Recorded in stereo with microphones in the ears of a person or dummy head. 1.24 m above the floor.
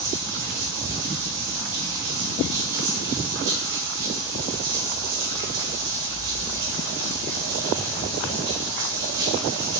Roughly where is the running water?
Right.